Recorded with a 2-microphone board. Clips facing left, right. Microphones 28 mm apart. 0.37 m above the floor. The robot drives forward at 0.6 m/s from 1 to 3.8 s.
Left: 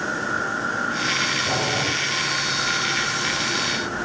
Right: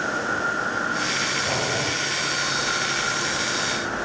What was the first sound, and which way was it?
Boiling, centre (ahead or behind).